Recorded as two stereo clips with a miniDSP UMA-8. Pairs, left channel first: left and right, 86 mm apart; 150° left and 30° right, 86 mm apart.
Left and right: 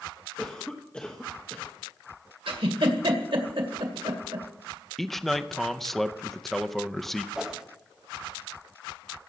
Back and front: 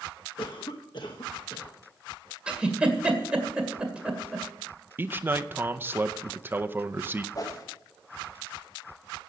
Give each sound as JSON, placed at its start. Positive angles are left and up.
{"t": 0.4, "sound": "a cough", "azimuth_deg": 165, "distance_m": 1.0}
{"t": 2.5, "sound": "a giggle", "azimuth_deg": -110, "distance_m": 1.9}
{"t": 5.0, "sound": "a man speaking", "azimuth_deg": 5, "distance_m": 0.5}
{"t": 7.3, "sound": "a whoosh", "azimuth_deg": -170, "distance_m": 1.2}